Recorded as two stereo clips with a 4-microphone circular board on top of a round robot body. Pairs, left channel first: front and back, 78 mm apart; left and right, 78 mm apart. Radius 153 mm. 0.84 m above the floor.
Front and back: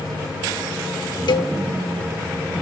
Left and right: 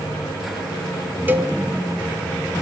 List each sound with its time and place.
1.3 s a cowbell: 25° right, 0.7 m